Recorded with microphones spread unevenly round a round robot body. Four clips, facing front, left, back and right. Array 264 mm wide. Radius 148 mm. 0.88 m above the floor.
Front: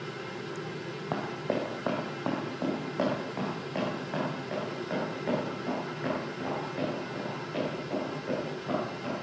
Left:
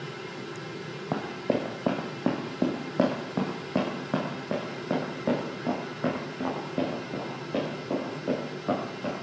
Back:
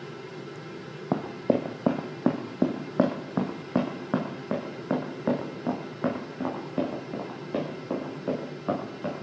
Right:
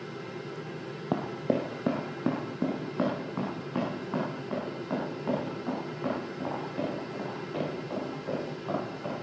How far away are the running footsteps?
About 1.6 m.